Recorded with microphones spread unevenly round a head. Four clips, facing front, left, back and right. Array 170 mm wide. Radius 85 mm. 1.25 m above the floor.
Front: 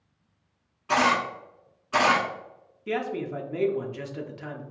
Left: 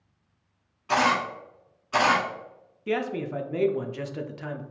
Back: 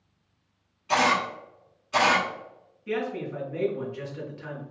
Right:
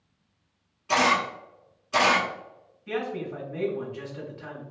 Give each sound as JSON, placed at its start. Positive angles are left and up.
{"t": 0.9, "sound": "a camera shutter", "azimuth_deg": 25, "distance_m": 1.1}
{"t": 2.9, "sound": "a man speaking", "azimuth_deg": 65, "distance_m": 0.5}